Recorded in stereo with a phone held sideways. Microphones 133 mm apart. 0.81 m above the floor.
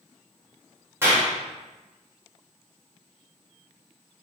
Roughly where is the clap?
Centre.